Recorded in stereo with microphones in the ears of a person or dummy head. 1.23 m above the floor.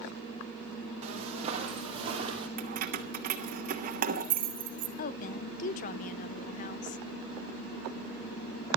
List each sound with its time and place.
1.0 s footsteps: 40° right (ahead or behind), 3.5 m; by 2.5 s 30° right (ahead or behind), 4 m
2.6 s keys jangling: 45° right (ahead or behind), 1.3 m
5.0 s a woman speaking: 35° left (ahead or behind), 0.7 m